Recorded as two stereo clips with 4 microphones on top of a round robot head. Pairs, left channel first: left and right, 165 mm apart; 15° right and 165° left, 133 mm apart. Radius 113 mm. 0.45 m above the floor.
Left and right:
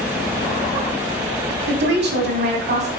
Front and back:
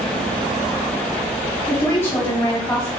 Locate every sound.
1.7 s a woman speaking: 90° right, 3 m